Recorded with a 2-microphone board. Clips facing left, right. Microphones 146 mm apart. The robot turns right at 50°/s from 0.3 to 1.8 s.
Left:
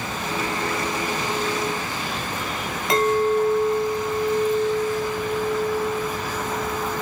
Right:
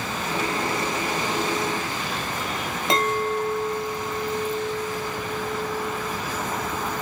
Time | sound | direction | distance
2.9 | a clink | 25° right (ahead or behind) | 1.6 m